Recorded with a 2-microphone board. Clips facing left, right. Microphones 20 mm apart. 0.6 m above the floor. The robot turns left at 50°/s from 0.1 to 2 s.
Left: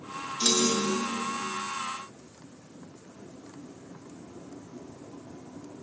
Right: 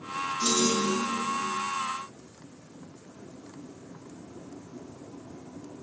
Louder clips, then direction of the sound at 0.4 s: Left 1 dB; 125° left.